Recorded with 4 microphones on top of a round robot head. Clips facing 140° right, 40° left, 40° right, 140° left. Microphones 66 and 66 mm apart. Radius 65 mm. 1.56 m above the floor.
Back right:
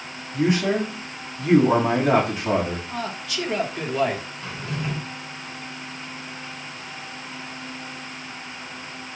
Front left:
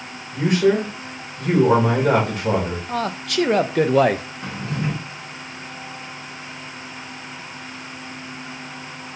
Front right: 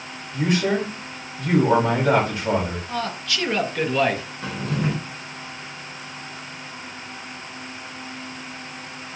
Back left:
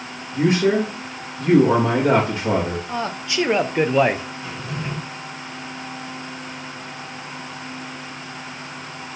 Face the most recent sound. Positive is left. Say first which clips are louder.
# front left 4 dB, front right 4 dB
turn(degrees=-15)